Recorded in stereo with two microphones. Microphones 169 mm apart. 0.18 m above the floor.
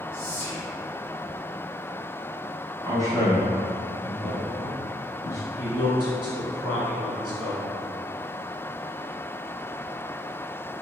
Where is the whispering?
10° left (ahead or behind), 1.9 m.